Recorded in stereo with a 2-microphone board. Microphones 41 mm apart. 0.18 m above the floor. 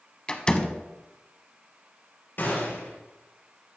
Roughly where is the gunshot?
Left.